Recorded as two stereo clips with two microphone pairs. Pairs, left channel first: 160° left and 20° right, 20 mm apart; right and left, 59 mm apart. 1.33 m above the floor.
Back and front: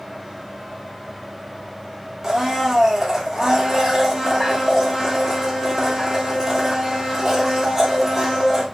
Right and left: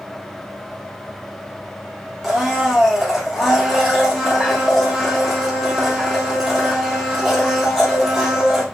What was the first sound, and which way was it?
A blender, 15° left.